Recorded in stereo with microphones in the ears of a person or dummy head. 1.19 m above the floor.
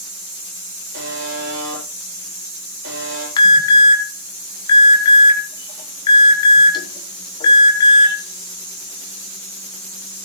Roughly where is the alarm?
Left.